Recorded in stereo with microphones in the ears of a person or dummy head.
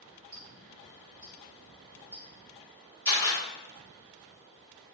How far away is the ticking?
About 1.9 m.